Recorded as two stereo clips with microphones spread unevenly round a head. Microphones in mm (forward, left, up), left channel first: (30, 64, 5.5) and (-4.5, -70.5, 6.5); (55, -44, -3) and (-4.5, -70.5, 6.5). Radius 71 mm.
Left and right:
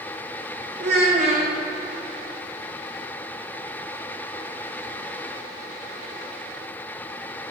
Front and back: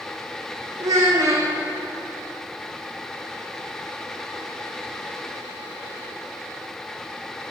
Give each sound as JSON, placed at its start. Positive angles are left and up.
{"t": 0.8, "sound": "a child speaking", "azimuth_deg": -150, "distance_m": 0.6}